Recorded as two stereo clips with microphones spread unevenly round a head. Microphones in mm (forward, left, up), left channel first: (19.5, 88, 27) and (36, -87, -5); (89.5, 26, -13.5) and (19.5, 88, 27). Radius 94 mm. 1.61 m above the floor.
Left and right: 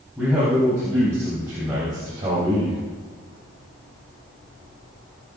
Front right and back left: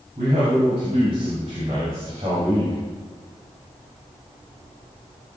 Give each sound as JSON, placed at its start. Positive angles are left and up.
{"t": 0.2, "sound": "a man speaking", "azimuth_deg": -170, "distance_m": 4.0}